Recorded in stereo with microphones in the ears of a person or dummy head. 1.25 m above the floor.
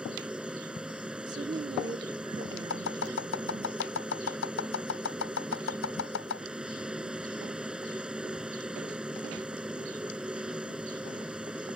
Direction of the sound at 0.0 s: 5° right (ahead or behind).